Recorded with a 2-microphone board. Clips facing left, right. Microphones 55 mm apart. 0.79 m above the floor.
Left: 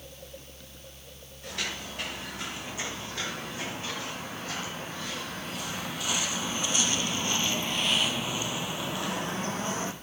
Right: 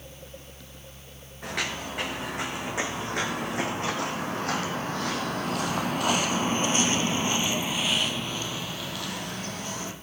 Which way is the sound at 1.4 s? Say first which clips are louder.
Right 5 dB; 75° right (ahead or behind).